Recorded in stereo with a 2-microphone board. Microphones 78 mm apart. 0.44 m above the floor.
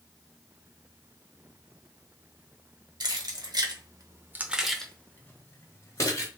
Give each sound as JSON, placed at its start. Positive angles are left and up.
{"t": 3.0, "sound": "keys jangling", "side_deg": -70, "distance_m": 1.4}